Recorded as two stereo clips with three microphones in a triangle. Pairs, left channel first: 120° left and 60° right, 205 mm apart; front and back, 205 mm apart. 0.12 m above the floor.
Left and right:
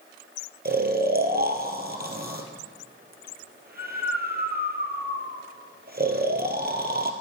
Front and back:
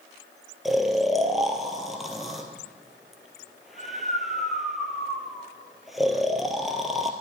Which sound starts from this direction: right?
Snoring, at 0.7 s.